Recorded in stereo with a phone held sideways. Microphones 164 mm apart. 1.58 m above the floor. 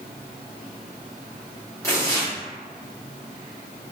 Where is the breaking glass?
I don't hear breaking glass.